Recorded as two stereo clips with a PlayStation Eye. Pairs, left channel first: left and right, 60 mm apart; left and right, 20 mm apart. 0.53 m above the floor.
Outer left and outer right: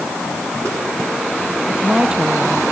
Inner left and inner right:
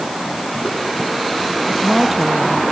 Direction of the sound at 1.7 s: 15° right (ahead or behind).